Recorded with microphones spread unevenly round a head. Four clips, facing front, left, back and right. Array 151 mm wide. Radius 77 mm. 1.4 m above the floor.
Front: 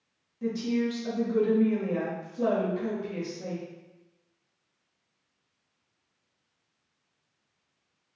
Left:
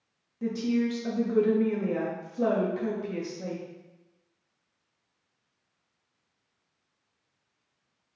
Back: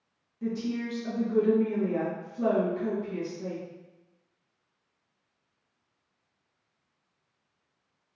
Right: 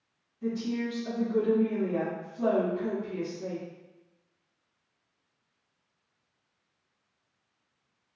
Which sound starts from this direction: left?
A woman speaking, at 0.4 s.